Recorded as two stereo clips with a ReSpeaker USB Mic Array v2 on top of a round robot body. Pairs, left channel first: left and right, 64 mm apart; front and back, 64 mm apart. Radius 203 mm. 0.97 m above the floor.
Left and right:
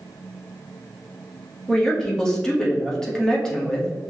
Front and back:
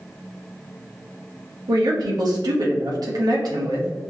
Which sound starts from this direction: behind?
A woman speaking, at 1.7 s.